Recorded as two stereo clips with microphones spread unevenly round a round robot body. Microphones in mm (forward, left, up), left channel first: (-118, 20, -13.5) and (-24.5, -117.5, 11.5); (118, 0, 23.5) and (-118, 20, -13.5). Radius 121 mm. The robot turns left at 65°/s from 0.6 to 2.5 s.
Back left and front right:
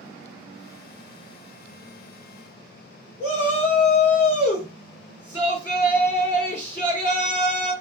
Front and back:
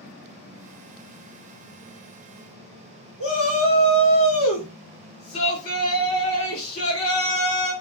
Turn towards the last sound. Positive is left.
turn(degrees=30)